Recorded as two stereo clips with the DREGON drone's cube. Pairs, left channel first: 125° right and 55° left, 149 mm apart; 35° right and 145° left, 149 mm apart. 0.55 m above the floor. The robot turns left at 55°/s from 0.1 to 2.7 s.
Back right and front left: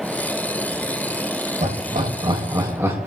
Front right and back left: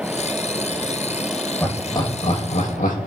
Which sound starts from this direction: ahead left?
Laughter, at 1.6 s.